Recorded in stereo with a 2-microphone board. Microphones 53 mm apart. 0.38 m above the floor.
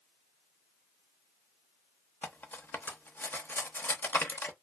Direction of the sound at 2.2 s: 40° left (ahead or behind).